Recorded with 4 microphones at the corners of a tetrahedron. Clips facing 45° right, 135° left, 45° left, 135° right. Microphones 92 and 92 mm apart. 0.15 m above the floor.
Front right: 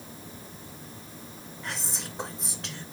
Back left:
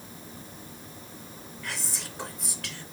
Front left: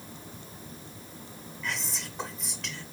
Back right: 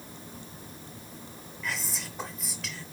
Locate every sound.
1.6 s whispering: 50° right, 1.1 m